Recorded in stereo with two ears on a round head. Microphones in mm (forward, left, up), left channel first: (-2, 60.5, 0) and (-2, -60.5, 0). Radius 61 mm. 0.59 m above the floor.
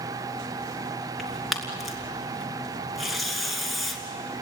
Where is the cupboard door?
No cupboard door in this recording.